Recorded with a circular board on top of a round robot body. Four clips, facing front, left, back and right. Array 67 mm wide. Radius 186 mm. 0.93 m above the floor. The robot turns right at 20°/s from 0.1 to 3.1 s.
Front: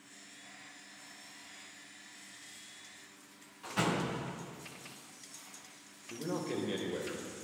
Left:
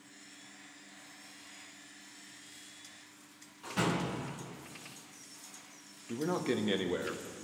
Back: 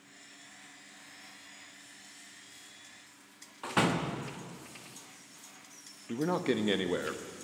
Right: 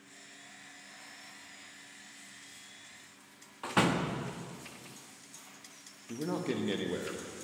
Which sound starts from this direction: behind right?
A door slam, at 3.6 s.